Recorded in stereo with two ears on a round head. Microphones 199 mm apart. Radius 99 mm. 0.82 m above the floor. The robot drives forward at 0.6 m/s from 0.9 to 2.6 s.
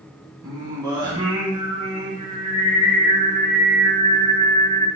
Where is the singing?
20° right (ahead or behind), 1.1 m; by 4.9 s 30° right (ahead or behind), 0.7 m.